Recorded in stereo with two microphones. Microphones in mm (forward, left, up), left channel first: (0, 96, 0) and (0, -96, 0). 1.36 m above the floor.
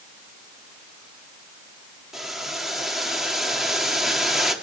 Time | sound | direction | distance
2.1 | boiling | centre (ahead or behind) | 2.5 m